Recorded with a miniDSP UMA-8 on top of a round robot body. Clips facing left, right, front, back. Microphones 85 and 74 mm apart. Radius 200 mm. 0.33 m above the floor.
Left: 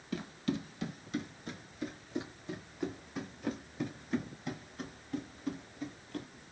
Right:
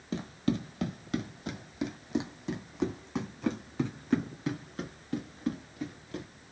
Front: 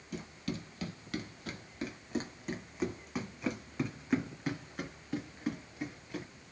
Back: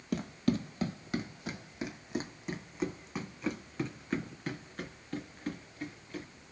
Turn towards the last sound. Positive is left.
turn(degrees=-75)